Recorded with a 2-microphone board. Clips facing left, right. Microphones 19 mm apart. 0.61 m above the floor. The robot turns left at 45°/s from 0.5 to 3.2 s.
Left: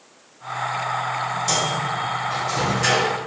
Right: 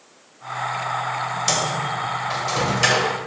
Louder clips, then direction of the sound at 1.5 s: Even; 35° right (ahead or behind).